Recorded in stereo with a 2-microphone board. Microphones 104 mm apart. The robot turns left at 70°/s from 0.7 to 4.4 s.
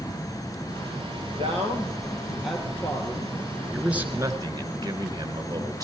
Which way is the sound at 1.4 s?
100° right.